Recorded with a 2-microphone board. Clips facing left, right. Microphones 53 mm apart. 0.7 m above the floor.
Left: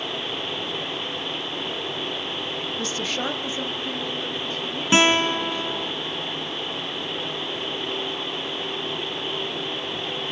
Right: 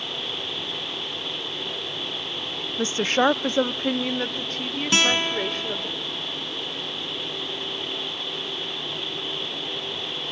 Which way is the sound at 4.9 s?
25° left (ahead or behind).